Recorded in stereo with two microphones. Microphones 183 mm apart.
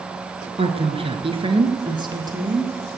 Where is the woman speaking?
30° right (ahead or behind), 1.2 m; by 2.7 s 20° right (ahead or behind), 2 m.